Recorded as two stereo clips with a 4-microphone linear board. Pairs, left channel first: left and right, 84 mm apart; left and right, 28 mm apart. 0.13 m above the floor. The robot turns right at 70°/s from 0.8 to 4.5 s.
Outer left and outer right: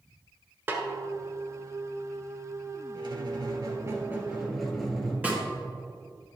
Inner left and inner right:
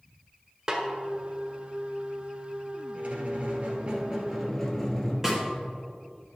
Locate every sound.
0.7 s a snare drum: 20° right (ahead or behind), 1.5 m; by 0.8 s 25° right (ahead or behind), 1.5 m
3.0 s a squeak: 105° right, 1.8 m; by 5.1 s straight ahead, 1.8 m
5.2 s a snare drum: 15° right (ahead or behind), 1.8 m